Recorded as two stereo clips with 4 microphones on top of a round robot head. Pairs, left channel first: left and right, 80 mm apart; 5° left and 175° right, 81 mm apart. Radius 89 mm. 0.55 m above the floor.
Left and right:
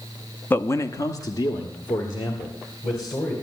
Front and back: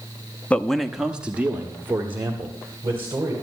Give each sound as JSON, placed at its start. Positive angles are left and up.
{"t": 0.5, "sound": "a man speaking", "azimuth_deg": 60, "distance_m": 0.8}